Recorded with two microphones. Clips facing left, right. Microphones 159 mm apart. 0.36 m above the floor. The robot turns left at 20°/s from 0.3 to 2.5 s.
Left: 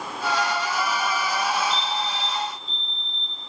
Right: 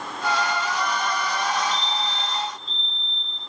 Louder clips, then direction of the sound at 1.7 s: Left 1 dB; 65° left (ahead or behind).